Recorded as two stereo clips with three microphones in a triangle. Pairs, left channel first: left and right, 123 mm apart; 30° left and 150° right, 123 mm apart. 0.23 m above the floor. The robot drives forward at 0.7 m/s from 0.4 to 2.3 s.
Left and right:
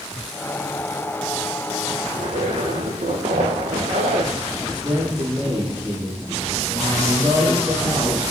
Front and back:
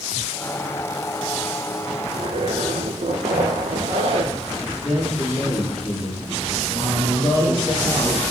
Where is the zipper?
115° right, 1.9 m.